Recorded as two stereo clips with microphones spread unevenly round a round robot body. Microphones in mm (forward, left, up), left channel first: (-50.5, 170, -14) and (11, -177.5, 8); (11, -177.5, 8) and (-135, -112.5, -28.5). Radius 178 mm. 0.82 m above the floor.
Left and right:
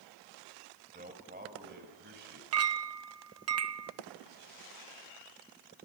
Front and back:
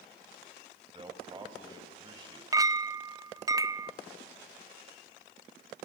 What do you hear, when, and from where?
0.9 s a man speaking: 145° right, 4.5 m; by 2.4 s 140° right, 6 m
2.5 s a clink: 130° right, 0.7 m